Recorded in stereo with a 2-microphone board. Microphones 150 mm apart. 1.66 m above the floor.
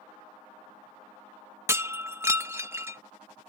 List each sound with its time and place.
1.7 s breaking glass: 15° right (ahead or behind)